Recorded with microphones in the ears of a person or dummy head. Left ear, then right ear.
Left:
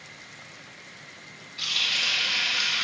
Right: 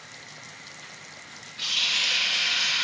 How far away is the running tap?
About 1.6 m.